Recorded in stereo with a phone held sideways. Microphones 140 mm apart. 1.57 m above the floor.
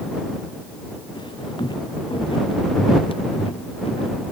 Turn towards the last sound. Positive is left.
turn(degrees=45)  # may be behind; listen again after turning